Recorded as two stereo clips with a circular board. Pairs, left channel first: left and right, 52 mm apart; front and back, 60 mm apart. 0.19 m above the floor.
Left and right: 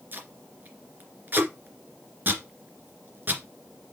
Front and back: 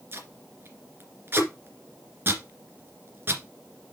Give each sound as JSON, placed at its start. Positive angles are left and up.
{"t": 0.1, "sound": "tape being pulled", "azimuth_deg": -135, "distance_m": 2.0}